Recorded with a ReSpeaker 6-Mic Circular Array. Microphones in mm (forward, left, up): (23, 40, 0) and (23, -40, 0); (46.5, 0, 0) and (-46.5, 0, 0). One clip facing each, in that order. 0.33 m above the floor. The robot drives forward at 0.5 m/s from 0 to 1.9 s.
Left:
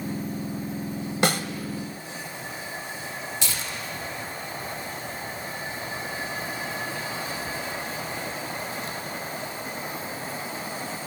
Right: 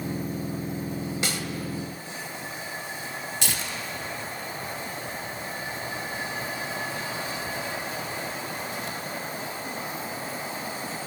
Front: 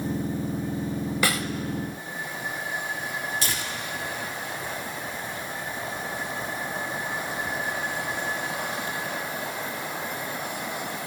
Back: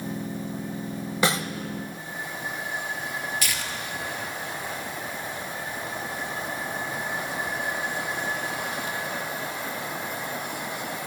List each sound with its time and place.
1.2 s a snare drum: 115° left, 0.6 m; by 1.4 s 125° left, 0.7 m
3.4 s tearing paper: 60° right, 1.6 m